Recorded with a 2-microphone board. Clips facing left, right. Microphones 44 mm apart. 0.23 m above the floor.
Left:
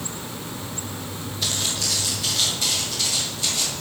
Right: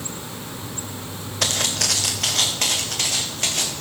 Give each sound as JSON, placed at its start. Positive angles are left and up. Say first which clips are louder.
{"t": 1.4, "sound": "footsteps", "louder": "right 4 dB", "side_deg": -75, "distance_m": 1.5}